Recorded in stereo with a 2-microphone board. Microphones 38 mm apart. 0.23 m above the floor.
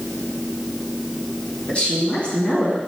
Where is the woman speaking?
30° left (ahead or behind), 3 m.